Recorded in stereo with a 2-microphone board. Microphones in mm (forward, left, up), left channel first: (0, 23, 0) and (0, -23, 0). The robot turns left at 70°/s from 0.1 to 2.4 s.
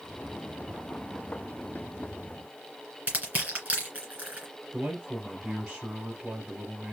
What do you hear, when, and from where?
3.1 s crushing: 30° right (ahead or behind), 2.5 m
4.7 s a man speaking: 15° right (ahead or behind), 1.2 m